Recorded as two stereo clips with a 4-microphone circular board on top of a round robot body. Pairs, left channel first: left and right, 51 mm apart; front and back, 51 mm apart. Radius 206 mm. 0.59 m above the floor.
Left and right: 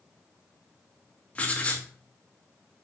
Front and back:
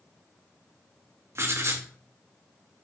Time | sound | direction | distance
1.4 | writing | 150° left | 2.5 m